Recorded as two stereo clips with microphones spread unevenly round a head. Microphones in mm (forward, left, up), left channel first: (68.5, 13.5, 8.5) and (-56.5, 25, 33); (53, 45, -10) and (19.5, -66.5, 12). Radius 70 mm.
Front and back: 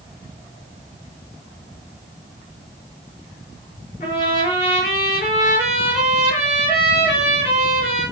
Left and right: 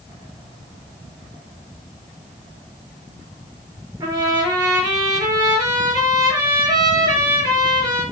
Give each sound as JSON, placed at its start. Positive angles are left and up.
{"t": 4.0, "sound": "a trumpet", "azimuth_deg": -55, "distance_m": 8.5}